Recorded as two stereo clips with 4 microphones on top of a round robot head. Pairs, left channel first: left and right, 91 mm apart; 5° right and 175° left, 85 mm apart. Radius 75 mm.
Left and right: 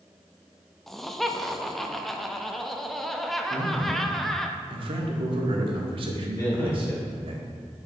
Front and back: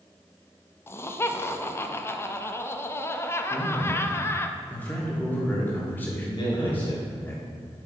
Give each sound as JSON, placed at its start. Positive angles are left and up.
{"t": 0.9, "sound": "laughter", "azimuth_deg": 5, "distance_m": 0.6}
{"t": 3.5, "sound": "a man speaking", "azimuth_deg": -75, "distance_m": 1.3}
{"t": 6.4, "sound": "a man speaking", "azimuth_deg": 30, "distance_m": 3.0}